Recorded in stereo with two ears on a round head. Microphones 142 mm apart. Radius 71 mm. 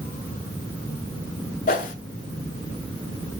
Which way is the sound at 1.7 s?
55° left (ahead or behind).